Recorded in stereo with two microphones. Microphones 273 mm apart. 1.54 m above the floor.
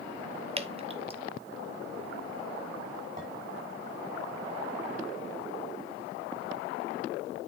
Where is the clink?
30° right (ahead or behind), 5.5 m.